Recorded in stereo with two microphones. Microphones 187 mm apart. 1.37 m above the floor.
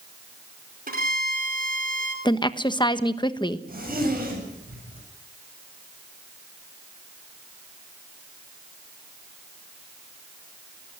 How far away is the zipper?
About 8.5 m.